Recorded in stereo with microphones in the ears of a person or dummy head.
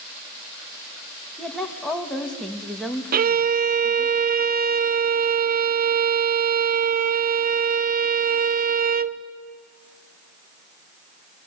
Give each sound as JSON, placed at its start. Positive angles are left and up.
{"t": 1.4, "sound": "a woman speaking", "side_deg": 0, "distance_m": 1.8}
{"t": 3.1, "sound": "a violin", "side_deg": -45, "distance_m": 0.6}